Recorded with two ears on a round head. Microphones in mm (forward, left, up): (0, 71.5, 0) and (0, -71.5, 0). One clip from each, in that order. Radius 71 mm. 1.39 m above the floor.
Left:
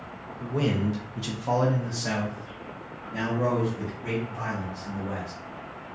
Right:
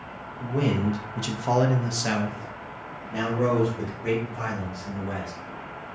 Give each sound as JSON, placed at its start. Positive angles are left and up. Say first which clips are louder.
{"t": 0.4, "sound": "a man speaking", "louder": "right 1 dB", "side_deg": 15, "distance_m": 0.8}